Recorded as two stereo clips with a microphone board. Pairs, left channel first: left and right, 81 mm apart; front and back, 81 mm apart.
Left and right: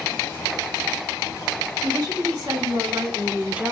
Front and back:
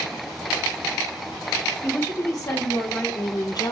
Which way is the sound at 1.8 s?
50° right.